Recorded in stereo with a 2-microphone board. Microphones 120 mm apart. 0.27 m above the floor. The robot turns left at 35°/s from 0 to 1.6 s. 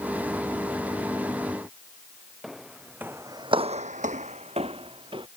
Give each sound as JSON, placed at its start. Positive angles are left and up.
{"t": 2.4, "sound": "footsteps", "side_deg": 0}